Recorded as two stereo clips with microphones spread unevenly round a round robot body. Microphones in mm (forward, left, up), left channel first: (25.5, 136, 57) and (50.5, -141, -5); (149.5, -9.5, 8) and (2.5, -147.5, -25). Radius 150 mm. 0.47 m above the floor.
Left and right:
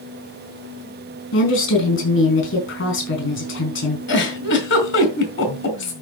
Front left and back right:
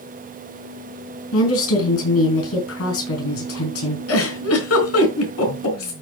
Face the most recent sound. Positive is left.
turn(degrees=45)